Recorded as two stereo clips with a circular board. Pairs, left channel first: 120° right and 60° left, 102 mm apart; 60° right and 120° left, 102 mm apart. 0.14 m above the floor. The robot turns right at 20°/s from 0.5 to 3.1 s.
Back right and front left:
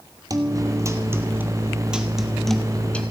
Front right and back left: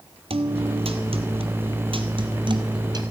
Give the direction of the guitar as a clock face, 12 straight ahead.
8 o'clock.